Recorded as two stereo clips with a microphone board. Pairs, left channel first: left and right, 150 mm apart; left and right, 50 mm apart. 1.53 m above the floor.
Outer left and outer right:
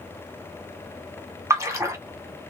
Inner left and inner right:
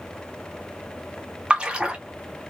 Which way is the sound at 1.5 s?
20° right (ahead or behind).